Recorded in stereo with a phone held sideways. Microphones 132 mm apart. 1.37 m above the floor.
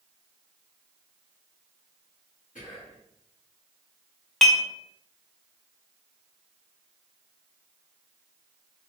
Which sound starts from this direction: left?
Whispering, at 2.5 s.